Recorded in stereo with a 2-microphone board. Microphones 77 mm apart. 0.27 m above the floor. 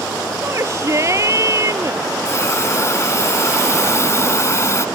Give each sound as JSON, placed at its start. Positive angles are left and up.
{"t": 0.4, "sound": "a shout", "side_deg": -40}
{"t": 2.2, "sound": "a hiss", "side_deg": 40}